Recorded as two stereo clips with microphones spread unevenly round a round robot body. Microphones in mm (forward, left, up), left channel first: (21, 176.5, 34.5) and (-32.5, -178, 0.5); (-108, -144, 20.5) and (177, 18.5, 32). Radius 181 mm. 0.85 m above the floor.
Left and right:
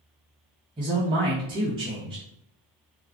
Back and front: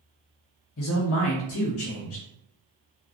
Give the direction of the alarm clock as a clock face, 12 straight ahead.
I don't hear an alarm clock.